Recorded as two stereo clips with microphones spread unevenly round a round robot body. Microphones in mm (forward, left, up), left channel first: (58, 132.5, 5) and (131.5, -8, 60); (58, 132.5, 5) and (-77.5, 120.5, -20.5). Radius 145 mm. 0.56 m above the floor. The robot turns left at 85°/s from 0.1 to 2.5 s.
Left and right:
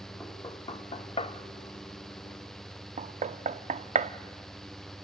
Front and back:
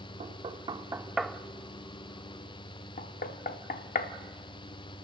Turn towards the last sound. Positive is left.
turn(degrees=-5)